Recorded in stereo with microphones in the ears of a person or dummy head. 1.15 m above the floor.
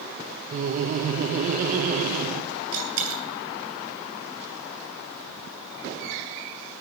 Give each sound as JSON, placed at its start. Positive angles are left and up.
{"t": 0.5, "sound": "laughter", "side_deg": -45, "distance_m": 0.9}
{"t": 2.7, "sound": "a dropped coin", "side_deg": -80, "distance_m": 6.0}